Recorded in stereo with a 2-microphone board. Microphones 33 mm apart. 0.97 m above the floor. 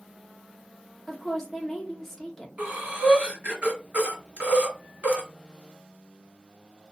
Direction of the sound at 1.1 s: 5° left (ahead or behind).